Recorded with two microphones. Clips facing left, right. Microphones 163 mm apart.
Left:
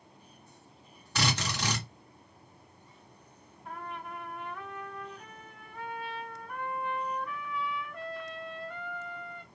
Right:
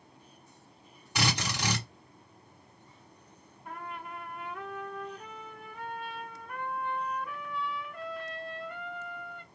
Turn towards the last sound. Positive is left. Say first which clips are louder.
# even
turn(degrees=0)  # may be behind; listen again after turning